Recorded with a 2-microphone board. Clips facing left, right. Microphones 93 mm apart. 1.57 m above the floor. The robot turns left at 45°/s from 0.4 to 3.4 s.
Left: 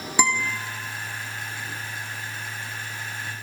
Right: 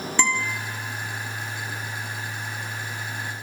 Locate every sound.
0.2 s a guitar: 15° left (ahead or behind), 2.5 m; by 0.5 s 10° left (ahead or behind), 2.5 m